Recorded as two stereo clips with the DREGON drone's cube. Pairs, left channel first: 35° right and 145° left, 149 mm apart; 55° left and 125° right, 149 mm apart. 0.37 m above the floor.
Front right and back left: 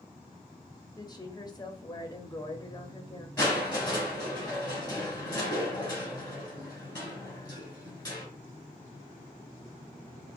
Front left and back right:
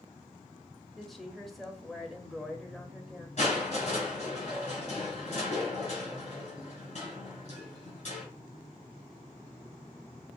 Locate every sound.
1.0 s a woman speaking: 35° right, 0.9 m
3.4 s crushing: 25° left, 2.5 m